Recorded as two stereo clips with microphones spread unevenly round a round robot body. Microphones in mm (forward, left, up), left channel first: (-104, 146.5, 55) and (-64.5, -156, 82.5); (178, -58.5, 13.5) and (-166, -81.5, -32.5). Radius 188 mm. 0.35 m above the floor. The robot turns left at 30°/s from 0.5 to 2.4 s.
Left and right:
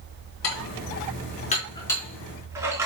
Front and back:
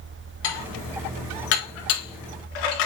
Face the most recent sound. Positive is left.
turn(degrees=0)